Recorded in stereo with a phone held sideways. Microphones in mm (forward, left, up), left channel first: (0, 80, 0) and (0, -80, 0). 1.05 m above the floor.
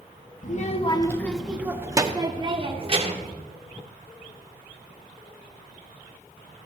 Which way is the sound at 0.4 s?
55° left (ahead or behind).